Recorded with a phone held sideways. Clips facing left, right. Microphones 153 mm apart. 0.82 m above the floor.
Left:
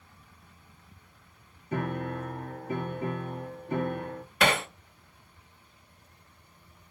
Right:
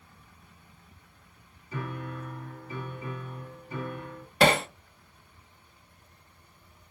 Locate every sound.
1.7 s a piano: 60° left (ahead or behind), 0.9 m
4.4 s hammering: 30° right (ahead or behind), 0.9 m